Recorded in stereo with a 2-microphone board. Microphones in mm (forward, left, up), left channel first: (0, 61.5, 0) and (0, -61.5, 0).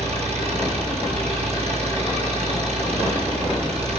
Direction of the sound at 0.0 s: 55° right (ahead or behind).